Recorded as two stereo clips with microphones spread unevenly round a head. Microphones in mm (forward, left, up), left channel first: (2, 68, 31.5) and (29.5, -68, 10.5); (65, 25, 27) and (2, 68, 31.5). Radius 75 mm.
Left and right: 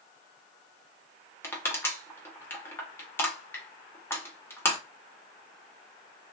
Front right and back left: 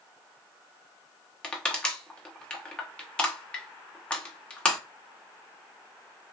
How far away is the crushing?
About 0.9 m.